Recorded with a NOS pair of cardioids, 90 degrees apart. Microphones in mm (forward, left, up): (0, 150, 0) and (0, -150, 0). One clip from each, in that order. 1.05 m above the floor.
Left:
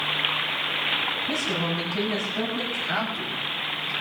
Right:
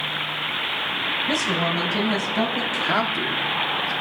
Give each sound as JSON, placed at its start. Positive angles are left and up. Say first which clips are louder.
{"t": 1.3, "sound": "a woman speaking", "louder": "right 4 dB", "azimuth_deg": -55, "distance_m": 7.0}
{"t": 2.7, "sound": "a man speaking", "louder": "right 5 dB", "azimuth_deg": -65, "distance_m": 3.0}